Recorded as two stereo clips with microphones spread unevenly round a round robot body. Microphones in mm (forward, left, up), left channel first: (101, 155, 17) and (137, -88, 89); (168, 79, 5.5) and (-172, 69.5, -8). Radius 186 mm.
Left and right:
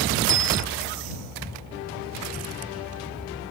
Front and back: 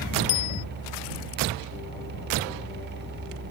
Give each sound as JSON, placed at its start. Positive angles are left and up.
{"t": 0.3, "sound": "a bicycle bell", "azimuth_deg": -45}